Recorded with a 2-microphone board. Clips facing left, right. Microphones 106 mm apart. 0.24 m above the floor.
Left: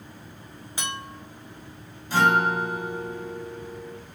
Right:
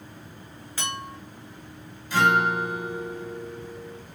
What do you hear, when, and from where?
0.8 s a clink: 20° left (ahead or behind), 0.9 m
2.1 s a guitar: 35° left (ahead or behind), 1.5 m